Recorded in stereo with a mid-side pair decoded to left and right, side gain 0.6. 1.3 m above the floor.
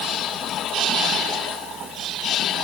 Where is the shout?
I don't hear a shout.